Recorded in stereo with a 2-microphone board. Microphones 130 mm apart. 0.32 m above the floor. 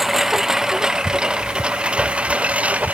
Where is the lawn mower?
Centre (ahead or behind); by 3.0 s 10° right (ahead or behind).